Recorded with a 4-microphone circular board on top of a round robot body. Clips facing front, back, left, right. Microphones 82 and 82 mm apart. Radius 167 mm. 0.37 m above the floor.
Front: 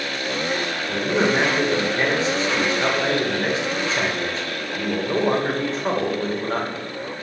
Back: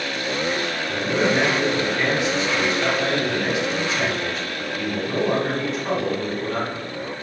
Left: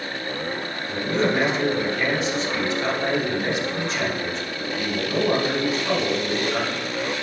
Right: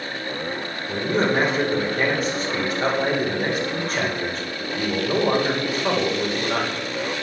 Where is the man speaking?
50° right, 2.5 m.